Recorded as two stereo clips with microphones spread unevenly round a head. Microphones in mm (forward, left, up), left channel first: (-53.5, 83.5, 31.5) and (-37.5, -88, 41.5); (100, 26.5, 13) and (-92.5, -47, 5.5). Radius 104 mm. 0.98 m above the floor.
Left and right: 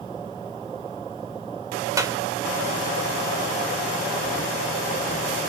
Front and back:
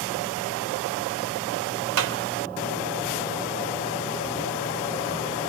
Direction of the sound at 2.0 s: 155° right.